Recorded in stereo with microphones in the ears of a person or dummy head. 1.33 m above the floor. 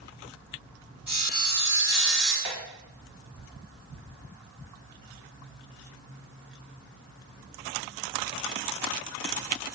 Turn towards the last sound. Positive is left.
turn(degrees=-55)  # may be behind; listen again after turning